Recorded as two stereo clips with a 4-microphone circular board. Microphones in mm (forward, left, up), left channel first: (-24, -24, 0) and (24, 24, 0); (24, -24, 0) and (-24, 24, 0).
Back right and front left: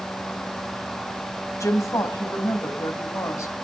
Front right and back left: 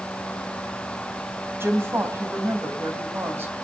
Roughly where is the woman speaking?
Behind.